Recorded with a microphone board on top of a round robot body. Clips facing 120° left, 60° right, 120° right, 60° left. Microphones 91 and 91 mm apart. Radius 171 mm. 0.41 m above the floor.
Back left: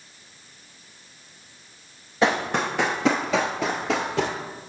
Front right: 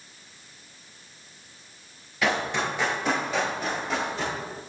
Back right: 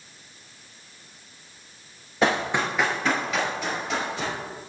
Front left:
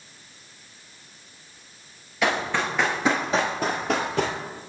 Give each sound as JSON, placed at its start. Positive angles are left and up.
{"t": 2.2, "sound": "running footsteps", "azimuth_deg": 180, "distance_m": 0.7}